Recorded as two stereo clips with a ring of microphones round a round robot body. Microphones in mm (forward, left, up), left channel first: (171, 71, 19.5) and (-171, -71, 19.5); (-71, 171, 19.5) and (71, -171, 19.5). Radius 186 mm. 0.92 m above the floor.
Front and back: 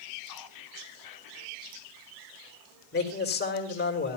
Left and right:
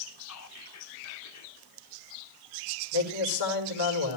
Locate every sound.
0.2 s whispering: 60° left, 2.5 m
2.9 s a man speaking: 90° left, 4.5 m